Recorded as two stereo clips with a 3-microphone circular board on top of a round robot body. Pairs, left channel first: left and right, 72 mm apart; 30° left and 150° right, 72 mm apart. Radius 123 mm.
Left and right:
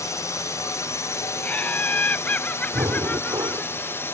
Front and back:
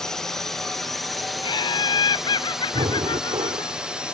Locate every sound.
0.0 s a drone: 110° left; by 4.1 s 135° left
1.4 s laughter: 20° left
2.7 s breathing: 130° right